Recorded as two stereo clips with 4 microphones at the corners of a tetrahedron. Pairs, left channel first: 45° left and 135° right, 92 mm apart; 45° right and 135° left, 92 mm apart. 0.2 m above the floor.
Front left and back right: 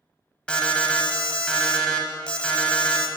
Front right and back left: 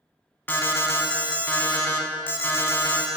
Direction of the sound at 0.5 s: 20° right.